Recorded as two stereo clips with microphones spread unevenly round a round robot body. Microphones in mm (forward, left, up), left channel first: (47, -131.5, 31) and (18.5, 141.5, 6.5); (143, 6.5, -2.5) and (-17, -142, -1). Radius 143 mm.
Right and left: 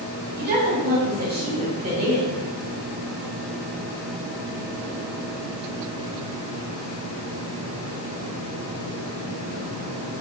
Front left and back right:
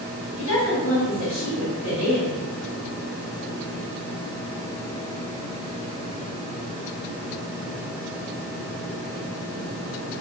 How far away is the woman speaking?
About 1.8 m.